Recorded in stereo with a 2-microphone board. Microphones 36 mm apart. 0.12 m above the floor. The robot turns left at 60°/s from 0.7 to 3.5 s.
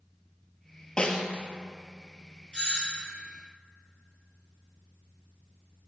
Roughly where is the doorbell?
Behind left.